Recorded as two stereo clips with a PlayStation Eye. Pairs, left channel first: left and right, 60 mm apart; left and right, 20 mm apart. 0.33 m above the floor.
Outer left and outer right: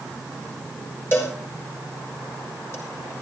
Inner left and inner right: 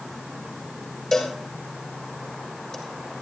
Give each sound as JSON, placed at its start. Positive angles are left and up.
{"t": 1.1, "sound": "a cowbell", "side_deg": 40, "distance_m": 5.0}